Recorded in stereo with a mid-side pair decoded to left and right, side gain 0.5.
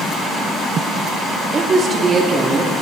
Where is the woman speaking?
40° right, 2 m.